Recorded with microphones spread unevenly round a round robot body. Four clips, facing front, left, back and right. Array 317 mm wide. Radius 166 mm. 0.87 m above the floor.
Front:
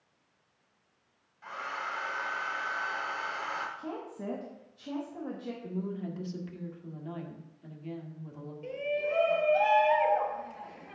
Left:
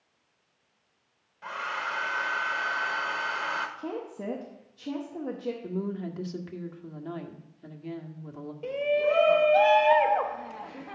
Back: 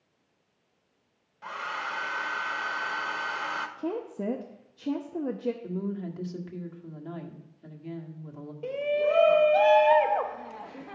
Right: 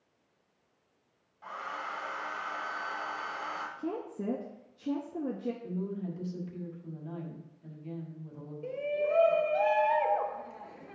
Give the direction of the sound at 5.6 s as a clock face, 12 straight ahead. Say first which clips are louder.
Left 3 dB, back 3 dB; 9 o'clock.